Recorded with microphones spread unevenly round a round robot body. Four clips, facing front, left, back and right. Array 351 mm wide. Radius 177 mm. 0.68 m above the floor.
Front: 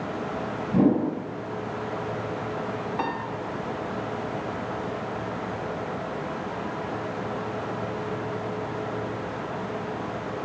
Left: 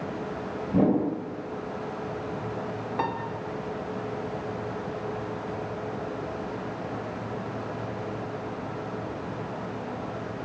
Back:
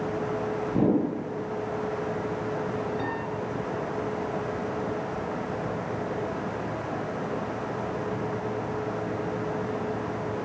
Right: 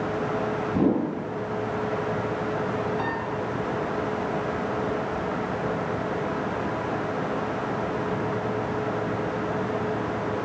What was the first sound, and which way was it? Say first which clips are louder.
A whoosh: left 1 dB, front 3 dB; 55° left.